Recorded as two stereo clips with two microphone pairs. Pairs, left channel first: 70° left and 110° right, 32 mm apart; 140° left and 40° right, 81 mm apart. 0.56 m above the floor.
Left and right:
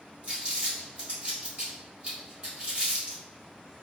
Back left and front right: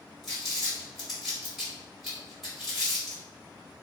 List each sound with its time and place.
0.2 s crumpling: 125° right, 1.5 m